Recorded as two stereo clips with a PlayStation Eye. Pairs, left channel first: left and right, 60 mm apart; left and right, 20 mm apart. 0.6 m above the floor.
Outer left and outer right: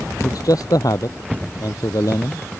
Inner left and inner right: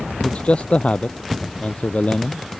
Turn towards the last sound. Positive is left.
turn(degrees=80)